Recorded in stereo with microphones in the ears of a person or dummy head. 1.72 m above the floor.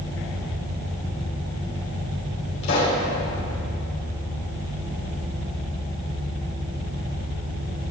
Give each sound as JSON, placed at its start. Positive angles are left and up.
{"t": 2.6, "sound": "a pop", "side_deg": 65, "distance_m": 3.5}